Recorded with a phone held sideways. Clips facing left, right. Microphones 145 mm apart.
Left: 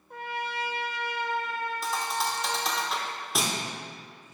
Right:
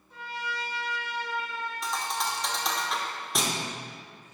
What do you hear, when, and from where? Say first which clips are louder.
0.1 s a trumpet: left 3 dB; 60° left (ahead or behind), 0.5 m
1.8 s a thud: even; centre (ahead or behind), 0.9 m